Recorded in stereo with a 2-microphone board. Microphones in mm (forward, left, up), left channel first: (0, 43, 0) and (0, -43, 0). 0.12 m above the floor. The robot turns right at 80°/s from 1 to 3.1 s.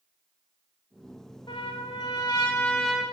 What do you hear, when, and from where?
1.5 s a trumpet: 65° left, 3.5 m; by 3.0 s 170° right, 3.5 m